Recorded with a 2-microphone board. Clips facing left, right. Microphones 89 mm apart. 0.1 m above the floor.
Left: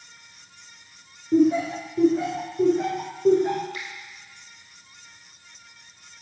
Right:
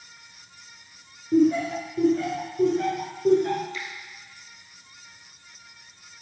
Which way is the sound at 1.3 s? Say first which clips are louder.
Left 1 dB; 20° left (ahead or behind).